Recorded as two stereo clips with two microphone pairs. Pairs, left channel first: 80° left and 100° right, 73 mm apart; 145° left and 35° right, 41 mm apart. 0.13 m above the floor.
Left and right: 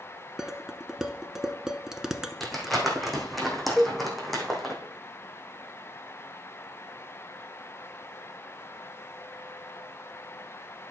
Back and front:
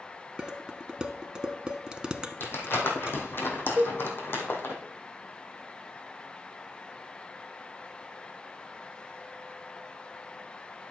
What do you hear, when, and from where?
0.4 s dishes clattering: 35° right, 0.8 m
2.4 s crumpling: 170° left, 2.5 m
3.8 s a cowbell: 15° right, 0.7 m